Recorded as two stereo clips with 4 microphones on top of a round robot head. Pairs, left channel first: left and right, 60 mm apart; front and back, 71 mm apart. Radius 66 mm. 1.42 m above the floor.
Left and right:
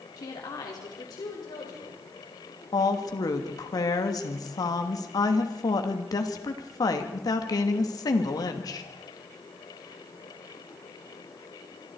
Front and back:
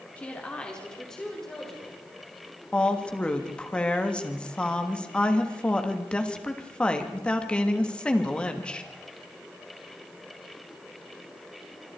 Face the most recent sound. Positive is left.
turn(degrees=75)